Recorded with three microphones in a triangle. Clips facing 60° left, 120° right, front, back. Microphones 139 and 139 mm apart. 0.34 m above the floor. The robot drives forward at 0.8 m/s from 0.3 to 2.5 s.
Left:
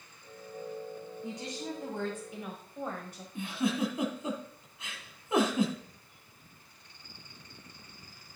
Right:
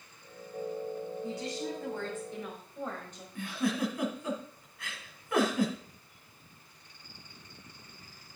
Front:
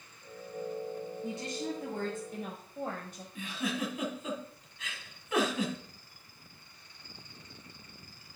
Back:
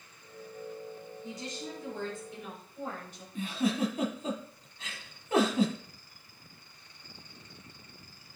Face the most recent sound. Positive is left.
turn(degrees=125)